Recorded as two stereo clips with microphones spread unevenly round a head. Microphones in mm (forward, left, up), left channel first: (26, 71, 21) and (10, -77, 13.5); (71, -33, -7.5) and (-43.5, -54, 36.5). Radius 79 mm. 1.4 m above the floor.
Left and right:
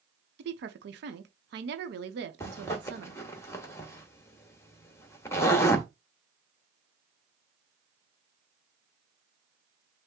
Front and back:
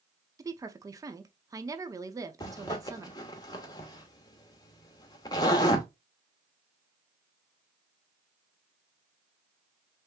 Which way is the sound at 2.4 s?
85° left.